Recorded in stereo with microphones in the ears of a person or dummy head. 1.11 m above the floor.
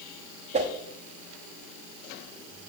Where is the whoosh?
30° right (ahead or behind), 0.8 m.